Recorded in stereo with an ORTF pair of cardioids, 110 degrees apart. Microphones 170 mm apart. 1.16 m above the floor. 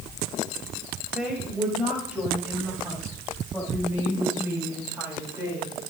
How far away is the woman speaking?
About 7.5 m.